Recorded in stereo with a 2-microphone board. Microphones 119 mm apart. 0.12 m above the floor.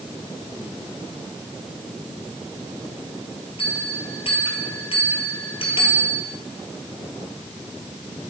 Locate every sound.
3.6 s a bell: 55° left (ahead or behind), 1.4 m